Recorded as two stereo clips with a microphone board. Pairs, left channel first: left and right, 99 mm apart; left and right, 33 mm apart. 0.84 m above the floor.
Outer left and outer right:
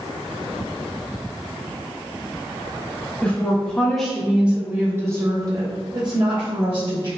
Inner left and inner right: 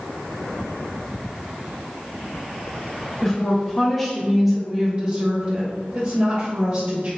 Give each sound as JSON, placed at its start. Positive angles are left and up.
{"t": 3.2, "sound": "a woman speaking", "side_deg": 15, "distance_m": 1.5}